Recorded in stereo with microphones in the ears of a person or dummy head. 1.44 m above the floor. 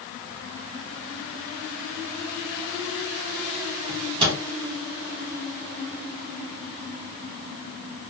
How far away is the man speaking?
No man speaking in this recording.